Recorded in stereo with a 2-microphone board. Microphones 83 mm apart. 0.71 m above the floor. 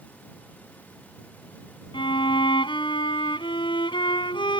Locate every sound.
1.9 s a violin: 80° left